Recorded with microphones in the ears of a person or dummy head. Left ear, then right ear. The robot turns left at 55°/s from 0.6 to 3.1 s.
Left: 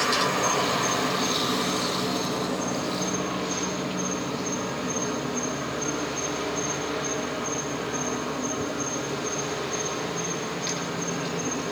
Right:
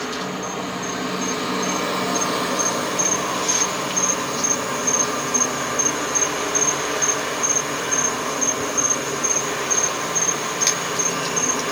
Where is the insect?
25° left, 1.3 m; by 11.7 s 110° right, 1.3 m.